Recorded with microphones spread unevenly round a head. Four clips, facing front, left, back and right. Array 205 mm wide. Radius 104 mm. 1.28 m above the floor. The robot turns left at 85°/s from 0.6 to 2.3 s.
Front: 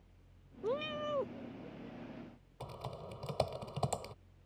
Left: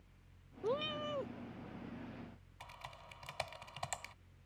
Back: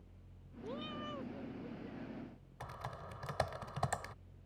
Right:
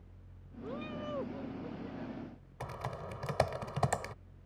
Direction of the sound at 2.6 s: 60° right.